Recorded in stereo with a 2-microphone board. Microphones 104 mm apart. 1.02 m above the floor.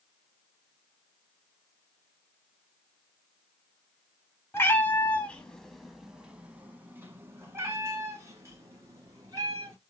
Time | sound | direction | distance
4.5 | a cat meowing | 25° left (ahead or behind) | 1.0 m